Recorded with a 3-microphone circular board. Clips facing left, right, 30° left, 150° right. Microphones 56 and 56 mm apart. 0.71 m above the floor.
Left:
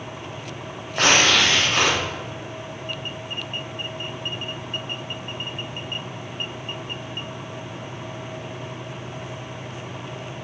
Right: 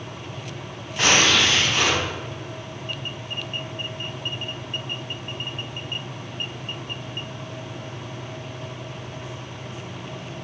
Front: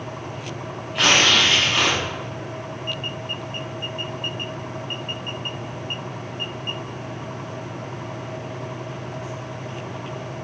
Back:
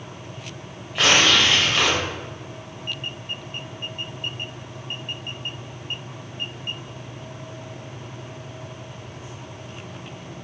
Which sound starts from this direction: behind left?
Tearing paper, at 0.9 s.